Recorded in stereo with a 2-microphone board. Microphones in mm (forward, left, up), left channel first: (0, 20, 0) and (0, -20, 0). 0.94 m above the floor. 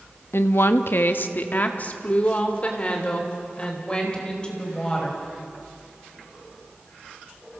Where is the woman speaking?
70° left (ahead or behind), 1.1 m; by 5.2 s 20° left (ahead or behind), 5 m.